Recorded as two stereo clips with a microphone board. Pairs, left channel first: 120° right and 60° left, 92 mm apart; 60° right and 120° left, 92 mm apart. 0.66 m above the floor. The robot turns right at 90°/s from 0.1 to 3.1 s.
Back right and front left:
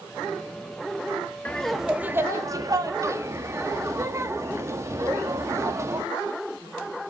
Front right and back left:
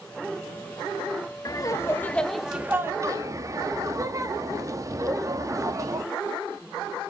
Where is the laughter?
55° right, 1.0 m; by 6.0 s 95° left, 1.0 m.